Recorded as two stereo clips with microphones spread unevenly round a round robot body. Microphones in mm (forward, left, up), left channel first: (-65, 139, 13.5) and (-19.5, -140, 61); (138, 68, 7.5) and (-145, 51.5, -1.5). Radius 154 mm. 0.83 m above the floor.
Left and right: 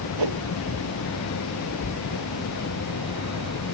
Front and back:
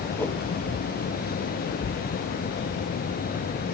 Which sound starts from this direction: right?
A whoosh, at 0.2 s.